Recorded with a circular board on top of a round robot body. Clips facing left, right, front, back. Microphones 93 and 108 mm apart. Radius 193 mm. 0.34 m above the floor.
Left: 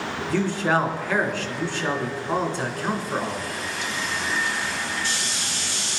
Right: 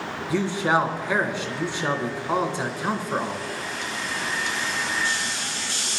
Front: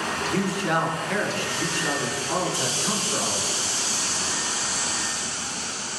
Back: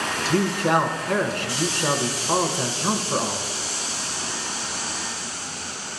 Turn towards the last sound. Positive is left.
turn(degrees=-155)